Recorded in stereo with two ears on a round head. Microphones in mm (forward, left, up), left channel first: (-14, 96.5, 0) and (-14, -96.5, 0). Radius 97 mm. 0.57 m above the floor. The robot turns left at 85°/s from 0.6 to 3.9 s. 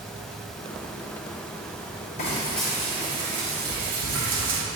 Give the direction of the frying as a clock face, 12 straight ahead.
11 o'clock.